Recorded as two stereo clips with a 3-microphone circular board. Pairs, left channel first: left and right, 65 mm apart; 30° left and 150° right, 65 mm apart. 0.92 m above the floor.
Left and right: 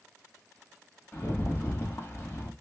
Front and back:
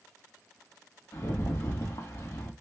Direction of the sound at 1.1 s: 40° left.